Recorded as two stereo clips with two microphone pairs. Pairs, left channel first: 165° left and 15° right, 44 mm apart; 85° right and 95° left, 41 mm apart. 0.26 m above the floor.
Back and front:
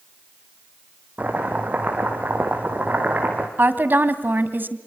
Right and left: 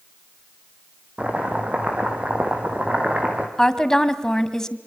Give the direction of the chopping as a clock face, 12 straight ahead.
11 o'clock.